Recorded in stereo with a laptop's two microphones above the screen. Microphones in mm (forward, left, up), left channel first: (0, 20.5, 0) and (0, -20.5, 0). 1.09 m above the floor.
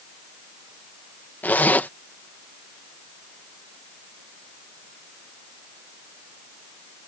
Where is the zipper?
45° left (ahead or behind).